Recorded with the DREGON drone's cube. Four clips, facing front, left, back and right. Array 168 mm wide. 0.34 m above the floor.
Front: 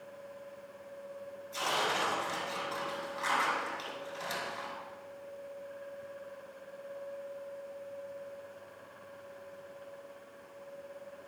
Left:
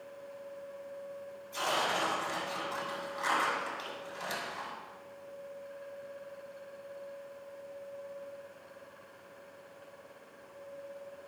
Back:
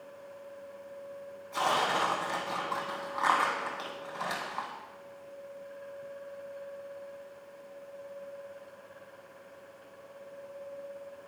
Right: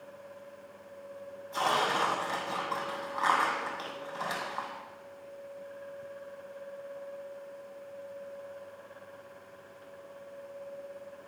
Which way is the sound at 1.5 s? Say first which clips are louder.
Right 4 dB, back 5 dB; 135° right.